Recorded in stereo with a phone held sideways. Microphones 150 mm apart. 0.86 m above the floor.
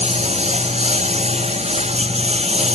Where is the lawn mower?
45° right (ahead or behind).